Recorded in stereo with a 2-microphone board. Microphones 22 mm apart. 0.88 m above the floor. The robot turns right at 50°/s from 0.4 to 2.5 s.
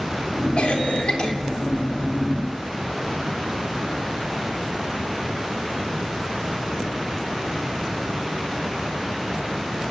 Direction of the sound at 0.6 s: 100° left.